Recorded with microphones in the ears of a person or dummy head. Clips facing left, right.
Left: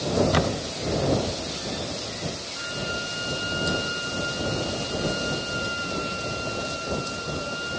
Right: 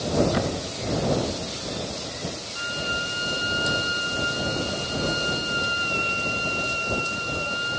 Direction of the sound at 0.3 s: 70° left (ahead or behind).